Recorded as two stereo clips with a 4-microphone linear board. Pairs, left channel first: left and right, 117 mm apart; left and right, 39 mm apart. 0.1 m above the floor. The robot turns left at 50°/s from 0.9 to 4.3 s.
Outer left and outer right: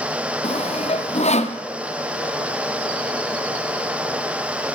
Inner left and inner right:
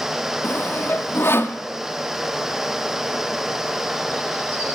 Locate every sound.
0.4 s sawing: 60° left (ahead or behind), 0.9 m; by 1.6 s 75° left (ahead or behind), 0.9 m